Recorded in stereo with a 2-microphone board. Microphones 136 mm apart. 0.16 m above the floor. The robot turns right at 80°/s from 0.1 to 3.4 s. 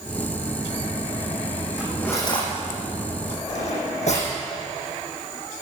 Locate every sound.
1.8 s cutlery clinking: 10° right (ahead or behind), 4.5 m; by 4.3 s 60° left (ahead or behind), 4.5 m